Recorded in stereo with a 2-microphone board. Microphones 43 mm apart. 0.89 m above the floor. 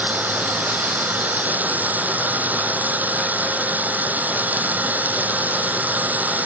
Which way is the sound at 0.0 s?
40° right (ahead or behind).